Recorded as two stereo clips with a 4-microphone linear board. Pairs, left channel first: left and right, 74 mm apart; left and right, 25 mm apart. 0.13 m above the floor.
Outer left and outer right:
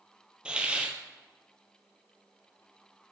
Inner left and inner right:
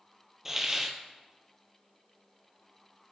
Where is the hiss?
15° right (ahead or behind), 0.8 m.